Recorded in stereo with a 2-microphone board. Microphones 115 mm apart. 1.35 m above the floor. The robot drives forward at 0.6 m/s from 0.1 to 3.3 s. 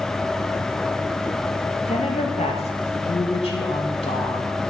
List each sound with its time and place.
1.9 s a woman speaking: 75° left (ahead or behind), 2 m; by 4.6 s 55° left (ahead or behind), 2.5 m